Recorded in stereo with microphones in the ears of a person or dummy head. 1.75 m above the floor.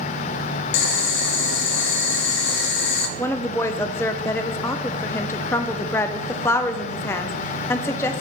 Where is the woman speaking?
15° left (ahead or behind), 0.5 m.